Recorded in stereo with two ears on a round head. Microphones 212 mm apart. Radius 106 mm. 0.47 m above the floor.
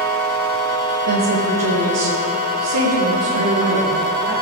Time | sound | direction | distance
1.1 | a woman speaking | 70° right (ahead or behind) | 4.5 m